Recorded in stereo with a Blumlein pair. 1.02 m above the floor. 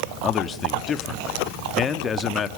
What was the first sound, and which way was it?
A man speaking, 20° left.